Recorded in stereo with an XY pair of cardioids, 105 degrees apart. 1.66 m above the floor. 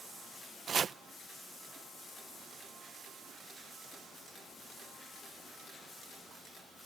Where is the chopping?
40° right.